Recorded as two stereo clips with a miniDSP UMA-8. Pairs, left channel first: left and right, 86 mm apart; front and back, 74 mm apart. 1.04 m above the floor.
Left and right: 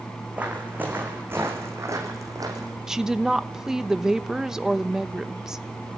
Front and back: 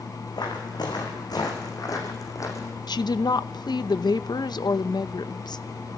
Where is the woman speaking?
5° right, 0.7 m.